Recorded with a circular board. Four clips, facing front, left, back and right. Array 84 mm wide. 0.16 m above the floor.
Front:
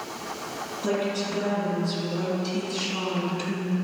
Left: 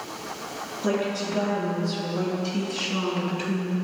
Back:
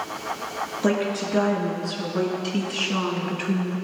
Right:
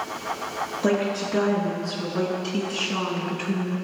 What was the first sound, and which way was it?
A woman speaking, 140° right.